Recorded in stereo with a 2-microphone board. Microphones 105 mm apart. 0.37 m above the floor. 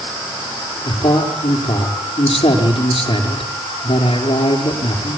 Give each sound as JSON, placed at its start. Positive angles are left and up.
{"t": 0.8, "sound": "a man speaking", "side_deg": 70, "distance_m": 6.5}